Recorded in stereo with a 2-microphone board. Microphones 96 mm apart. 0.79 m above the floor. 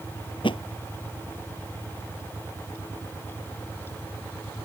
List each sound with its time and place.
0.4 s a thud: 65° left (ahead or behind)